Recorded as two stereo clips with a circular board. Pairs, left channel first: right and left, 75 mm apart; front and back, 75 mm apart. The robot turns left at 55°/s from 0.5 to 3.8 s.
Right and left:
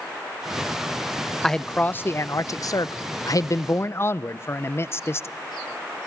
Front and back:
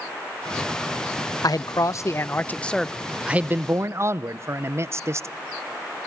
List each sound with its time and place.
1.4 s a man speaking: 5° right, 0.6 m; by 5.3 s 135° right, 0.6 m